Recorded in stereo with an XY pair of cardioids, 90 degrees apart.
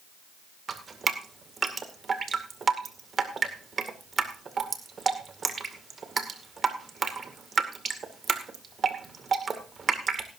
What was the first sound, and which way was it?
Dripping, 45° right.